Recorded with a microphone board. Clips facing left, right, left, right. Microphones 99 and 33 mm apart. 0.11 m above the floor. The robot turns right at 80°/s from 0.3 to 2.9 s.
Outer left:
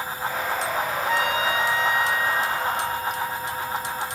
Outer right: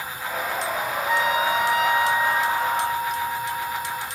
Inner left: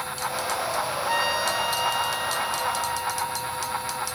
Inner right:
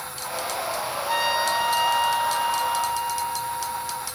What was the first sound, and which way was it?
A trumpet, straight behind.